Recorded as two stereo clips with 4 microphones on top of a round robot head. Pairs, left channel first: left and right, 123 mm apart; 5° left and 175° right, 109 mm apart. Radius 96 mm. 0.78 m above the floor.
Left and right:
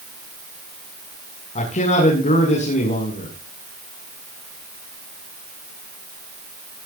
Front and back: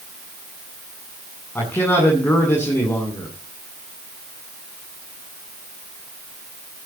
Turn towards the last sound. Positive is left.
turn(degrees=75)